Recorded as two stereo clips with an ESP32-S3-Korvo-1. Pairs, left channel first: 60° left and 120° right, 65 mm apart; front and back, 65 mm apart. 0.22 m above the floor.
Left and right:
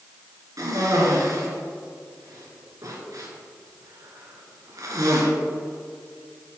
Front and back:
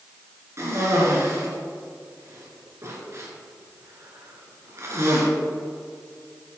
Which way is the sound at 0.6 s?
140° right.